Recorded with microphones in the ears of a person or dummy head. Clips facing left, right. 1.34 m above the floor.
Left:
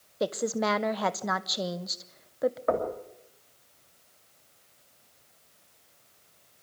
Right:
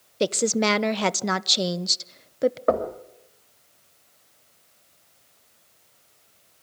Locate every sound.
0.2 s a woman speaking: 45° right (ahead or behind), 0.7 m
2.7 s knocking: 65° right (ahead or behind), 2.5 m